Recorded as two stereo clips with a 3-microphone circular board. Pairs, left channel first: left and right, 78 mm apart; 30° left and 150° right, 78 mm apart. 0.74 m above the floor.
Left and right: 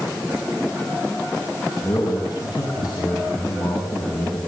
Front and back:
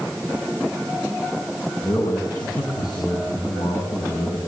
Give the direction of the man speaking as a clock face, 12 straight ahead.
10 o'clock.